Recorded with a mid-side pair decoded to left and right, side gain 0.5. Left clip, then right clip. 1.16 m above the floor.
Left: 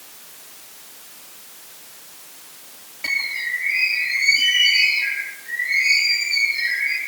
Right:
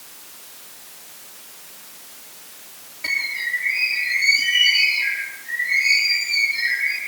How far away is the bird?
About 6.5 m.